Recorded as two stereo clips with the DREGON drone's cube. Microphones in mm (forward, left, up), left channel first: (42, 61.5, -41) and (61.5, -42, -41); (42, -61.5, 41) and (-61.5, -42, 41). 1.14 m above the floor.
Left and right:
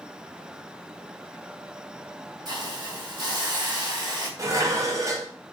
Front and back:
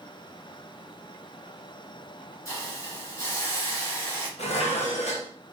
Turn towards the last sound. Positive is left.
turn(degrees=-15)